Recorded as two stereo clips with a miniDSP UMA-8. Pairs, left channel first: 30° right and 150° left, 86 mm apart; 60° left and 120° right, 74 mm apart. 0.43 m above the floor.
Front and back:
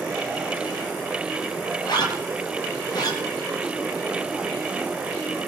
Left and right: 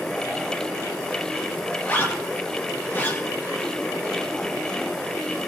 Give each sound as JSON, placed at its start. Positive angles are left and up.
{"t": 1.8, "sound": "a zipper", "azimuth_deg": 0, "distance_m": 7.0}